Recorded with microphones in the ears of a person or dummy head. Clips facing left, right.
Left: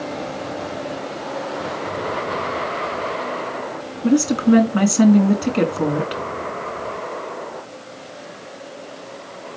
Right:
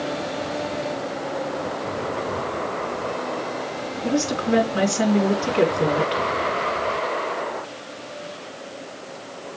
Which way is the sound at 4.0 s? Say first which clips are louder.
Left 7 dB; 50° left (ahead or behind).